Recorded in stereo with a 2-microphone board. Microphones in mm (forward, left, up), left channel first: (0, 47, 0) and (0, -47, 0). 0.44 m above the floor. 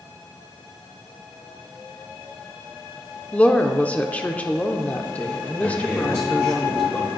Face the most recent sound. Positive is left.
turn(degrees=25)  # may be behind; listen again after turning